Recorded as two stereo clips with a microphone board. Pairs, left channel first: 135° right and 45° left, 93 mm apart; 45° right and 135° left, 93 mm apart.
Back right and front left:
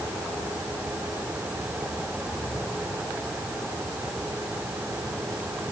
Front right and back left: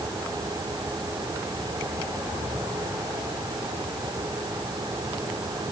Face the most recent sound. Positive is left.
No sound to turn to.